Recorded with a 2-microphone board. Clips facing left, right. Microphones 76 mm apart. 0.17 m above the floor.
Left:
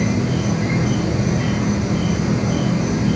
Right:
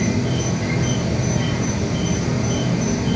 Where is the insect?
30° left (ahead or behind), 0.8 m.